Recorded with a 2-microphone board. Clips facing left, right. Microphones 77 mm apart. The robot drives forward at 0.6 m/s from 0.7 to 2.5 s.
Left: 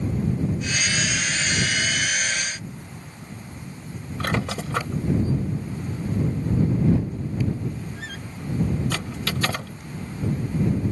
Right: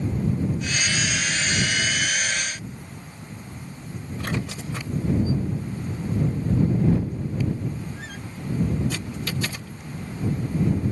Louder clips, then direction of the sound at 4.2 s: Left 4 dB; 85° left.